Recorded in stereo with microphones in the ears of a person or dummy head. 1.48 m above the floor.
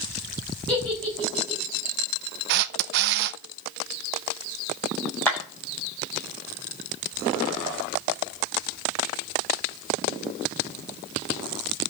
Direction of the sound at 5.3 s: 10° left (ahead or behind).